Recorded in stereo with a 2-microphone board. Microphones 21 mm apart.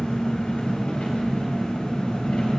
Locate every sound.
0.0 s an engine running: 75° left (ahead or behind), 3 m